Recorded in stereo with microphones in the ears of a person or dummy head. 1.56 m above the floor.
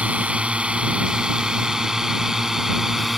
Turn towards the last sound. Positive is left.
turn(degrees=0)  # may be behind; listen again after turning